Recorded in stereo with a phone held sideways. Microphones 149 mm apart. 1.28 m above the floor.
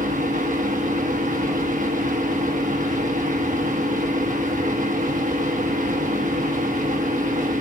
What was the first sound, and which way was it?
A fan, 60° right (ahead or behind).